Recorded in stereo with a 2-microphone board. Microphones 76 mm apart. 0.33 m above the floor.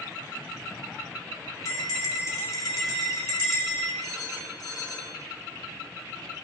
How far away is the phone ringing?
About 2 m.